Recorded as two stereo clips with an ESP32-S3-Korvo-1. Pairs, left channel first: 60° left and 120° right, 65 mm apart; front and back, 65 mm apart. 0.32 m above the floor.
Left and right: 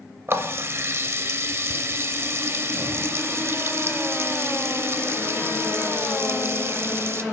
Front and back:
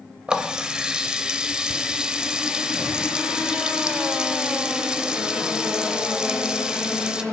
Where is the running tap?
110° right, 0.7 m.